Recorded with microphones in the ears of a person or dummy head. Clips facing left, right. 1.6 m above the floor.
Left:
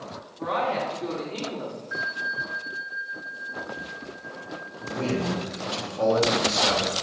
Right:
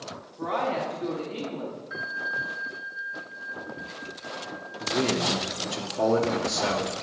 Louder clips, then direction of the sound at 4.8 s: Right 1 dB; 65° right (ahead or behind).